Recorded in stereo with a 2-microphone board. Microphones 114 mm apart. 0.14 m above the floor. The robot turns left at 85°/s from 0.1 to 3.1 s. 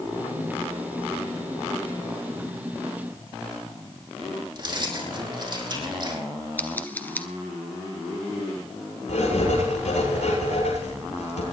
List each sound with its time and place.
4.5 s keys jangling: 40° right (ahead or behind), 4.5 m
6.6 s scissors: 15° left (ahead or behind), 1.1 m
9.1 s writing: 85° left, 8 m